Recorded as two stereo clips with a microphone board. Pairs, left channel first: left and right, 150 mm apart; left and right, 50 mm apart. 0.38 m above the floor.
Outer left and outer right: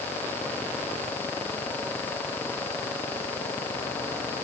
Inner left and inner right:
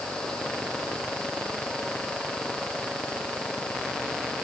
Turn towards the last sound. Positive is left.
No sound to turn to.